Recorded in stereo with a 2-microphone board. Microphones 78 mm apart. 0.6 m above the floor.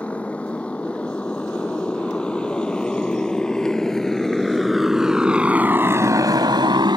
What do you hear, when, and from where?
0.0 s a motorcycle: 15° left (ahead or behind); by 7.0 s 80° right